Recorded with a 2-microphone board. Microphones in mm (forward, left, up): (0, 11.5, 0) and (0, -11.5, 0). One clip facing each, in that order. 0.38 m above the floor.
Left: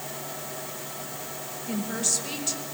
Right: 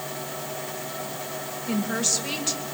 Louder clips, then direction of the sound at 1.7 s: Right 3 dB; 25° right (ahead or behind).